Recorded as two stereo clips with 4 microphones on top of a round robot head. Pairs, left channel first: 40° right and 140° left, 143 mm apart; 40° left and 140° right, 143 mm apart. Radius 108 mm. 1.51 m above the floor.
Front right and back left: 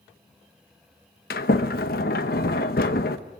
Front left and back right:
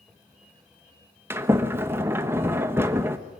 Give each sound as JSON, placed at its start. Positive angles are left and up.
{"t": 1.3, "sound": "a sliding door", "azimuth_deg": -65, "distance_m": 1.0}